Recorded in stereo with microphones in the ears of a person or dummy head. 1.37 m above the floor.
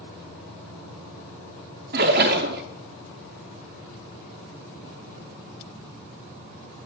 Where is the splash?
45° right (ahead or behind), 0.7 m.